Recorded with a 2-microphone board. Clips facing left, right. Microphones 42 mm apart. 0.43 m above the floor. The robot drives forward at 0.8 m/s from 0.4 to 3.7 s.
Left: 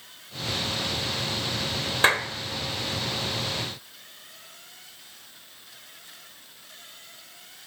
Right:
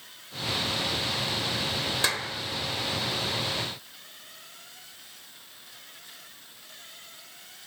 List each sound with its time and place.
2.0 s a clap: 40° left (ahead or behind), 1.0 m; by 2.3 s 50° left (ahead or behind), 0.9 m